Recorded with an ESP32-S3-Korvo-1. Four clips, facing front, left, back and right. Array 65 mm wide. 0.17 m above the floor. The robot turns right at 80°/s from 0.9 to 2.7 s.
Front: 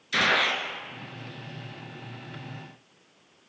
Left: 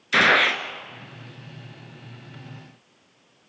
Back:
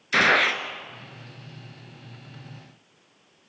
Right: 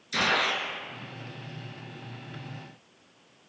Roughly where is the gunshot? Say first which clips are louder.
Left 8 dB, back 4 dB; behind left.